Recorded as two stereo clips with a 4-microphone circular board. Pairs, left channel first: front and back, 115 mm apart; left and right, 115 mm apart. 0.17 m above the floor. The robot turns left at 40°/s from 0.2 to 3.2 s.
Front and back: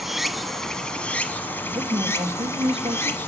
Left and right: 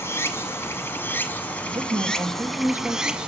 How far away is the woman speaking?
About 2.5 m.